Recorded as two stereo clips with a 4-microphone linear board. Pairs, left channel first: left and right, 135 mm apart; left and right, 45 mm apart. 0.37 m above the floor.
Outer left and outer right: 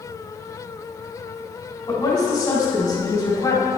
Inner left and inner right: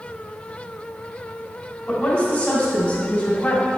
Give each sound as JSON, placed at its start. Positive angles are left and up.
{"t": 1.9, "sound": "a woman speaking", "side_deg": 30, "distance_m": 2.0}